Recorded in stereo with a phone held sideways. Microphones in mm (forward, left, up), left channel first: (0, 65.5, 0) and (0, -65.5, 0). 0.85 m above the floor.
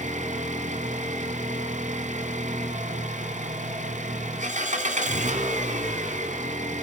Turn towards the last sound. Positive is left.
turn(degrees=-70)  # may be behind; listen again after turning